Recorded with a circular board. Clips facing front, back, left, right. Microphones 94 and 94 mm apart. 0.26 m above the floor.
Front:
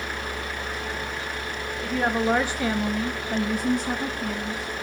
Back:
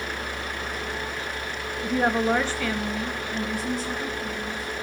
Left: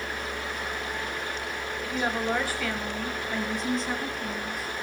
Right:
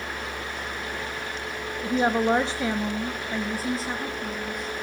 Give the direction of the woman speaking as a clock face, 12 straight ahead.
4 o'clock.